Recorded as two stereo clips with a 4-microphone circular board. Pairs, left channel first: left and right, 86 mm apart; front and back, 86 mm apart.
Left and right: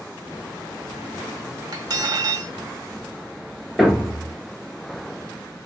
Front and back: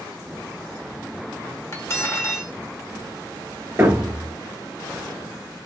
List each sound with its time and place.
1.7 s cutlery clinking: 55° right, 0.9 m
3.8 s a thud: straight behind, 0.6 m